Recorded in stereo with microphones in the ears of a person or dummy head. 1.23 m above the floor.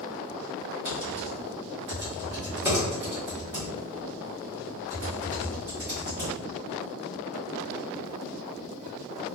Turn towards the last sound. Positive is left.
turn(degrees=-10)  # may be behind; listen again after turning